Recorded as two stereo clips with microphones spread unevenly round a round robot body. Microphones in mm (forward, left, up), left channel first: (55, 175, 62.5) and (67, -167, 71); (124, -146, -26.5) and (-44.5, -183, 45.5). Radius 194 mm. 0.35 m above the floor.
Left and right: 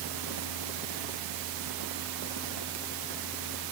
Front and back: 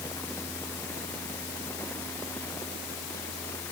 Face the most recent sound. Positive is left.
No sound to turn to.